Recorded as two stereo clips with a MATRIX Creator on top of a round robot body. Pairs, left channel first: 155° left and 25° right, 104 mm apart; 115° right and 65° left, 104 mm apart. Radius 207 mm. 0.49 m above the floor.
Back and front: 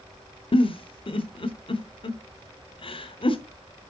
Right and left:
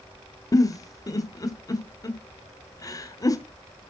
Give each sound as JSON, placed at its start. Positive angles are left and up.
{"t": 0.5, "sound": "a giggle", "azimuth_deg": -170, "distance_m": 1.5}